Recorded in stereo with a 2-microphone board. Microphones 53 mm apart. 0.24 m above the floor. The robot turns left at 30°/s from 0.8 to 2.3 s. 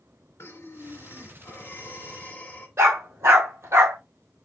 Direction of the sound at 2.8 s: 70° right (ahead or behind).